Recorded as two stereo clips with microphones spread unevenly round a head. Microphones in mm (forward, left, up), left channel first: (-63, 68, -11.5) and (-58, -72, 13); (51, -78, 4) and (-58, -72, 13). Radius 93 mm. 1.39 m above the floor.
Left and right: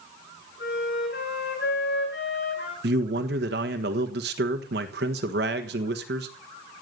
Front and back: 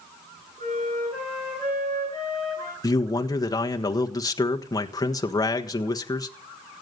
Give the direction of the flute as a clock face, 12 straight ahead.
10 o'clock.